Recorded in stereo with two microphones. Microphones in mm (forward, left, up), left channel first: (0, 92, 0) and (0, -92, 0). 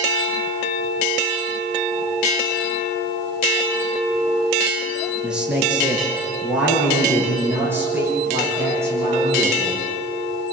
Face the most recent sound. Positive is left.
turn(degrees=-15)  # may be behind; listen again after turning